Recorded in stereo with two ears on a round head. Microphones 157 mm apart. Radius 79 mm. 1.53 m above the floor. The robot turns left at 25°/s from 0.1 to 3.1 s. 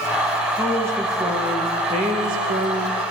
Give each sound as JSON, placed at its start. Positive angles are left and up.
{"t": 0.6, "sound": "a woman speaking", "azimuth_deg": -5, "distance_m": 1.4}